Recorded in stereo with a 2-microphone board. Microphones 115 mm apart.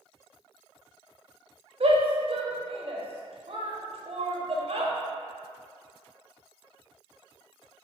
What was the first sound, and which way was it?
A shout, 60° right (ahead or behind).